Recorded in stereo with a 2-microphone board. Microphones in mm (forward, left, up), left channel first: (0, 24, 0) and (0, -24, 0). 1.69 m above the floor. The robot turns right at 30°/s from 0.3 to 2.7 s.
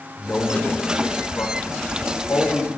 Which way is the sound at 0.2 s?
35° left.